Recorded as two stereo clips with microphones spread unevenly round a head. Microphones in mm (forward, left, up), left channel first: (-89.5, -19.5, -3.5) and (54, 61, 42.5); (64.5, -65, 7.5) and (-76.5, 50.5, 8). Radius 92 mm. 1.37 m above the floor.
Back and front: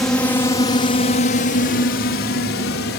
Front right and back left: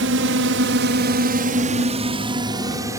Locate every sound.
0.0 s a drone: 130° left; by 3.0 s 145° right